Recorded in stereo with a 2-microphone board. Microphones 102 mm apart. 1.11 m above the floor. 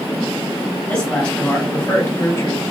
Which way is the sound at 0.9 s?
10° left (ahead or behind).